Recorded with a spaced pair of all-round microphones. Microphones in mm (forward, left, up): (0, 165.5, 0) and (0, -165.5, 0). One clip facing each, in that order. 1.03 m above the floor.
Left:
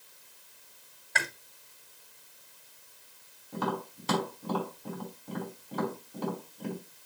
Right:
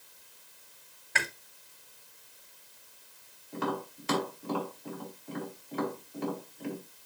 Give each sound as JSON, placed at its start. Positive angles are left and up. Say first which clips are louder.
{"t": 1.1, "sound": "chewing", "louder": "even", "side_deg": -35, "distance_m": 1.2}
{"t": 3.5, "sound": "tapping", "louder": "even", "side_deg": 50, "distance_m": 3.5}